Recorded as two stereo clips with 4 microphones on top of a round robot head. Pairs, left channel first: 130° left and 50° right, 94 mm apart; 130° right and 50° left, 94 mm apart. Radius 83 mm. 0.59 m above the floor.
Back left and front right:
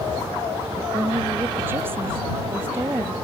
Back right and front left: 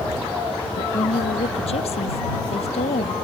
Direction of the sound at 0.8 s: 120° right.